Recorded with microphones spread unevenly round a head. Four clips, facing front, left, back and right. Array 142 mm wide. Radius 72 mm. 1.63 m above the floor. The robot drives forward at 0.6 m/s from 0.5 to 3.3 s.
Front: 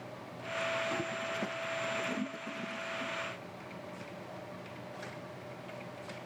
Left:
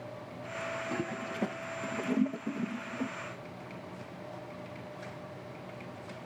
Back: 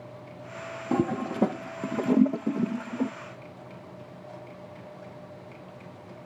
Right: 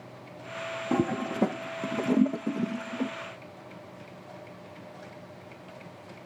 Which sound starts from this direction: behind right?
A toilet flushing, at 0.9 s.